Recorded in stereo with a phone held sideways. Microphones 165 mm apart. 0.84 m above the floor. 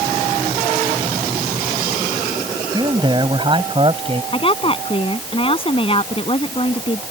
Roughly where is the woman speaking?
Left.